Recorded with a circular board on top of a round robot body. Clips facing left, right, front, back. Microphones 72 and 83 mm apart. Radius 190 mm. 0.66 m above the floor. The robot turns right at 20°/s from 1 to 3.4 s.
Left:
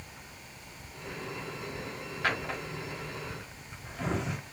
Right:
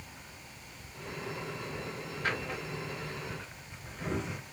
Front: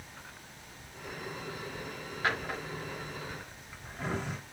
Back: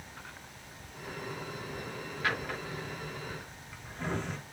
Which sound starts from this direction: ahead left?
A drawer, at 2.2 s.